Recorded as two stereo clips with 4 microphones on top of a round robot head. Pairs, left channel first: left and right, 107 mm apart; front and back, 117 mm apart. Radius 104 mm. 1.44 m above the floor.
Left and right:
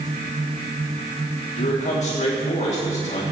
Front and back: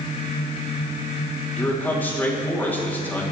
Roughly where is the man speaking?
Left.